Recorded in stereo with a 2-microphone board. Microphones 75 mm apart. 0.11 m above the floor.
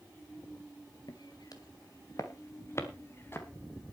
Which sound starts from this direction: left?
Footsteps, at 1.1 s.